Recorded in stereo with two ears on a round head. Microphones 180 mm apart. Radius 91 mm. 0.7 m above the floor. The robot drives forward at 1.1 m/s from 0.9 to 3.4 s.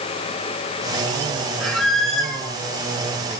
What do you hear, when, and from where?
1.6 s a squeak: centre (ahead or behind), 3 m